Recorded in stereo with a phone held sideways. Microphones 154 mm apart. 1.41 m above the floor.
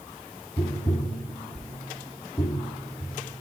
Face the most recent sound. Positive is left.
turn(degrees=35)  # may be behind; listen again after turning